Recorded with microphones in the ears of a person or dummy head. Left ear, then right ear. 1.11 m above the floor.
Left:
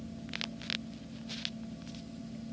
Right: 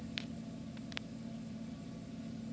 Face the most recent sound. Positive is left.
turn(degrees=-40)  # may be behind; listen again after turning